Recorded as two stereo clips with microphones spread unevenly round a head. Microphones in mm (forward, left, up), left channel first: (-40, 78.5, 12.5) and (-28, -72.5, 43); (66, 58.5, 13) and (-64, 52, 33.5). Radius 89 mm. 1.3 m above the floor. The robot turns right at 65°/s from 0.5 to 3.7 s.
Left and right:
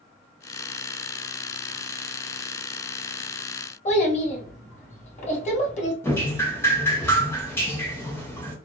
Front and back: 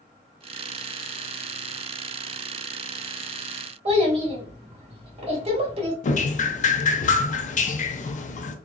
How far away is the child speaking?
About 1.4 m.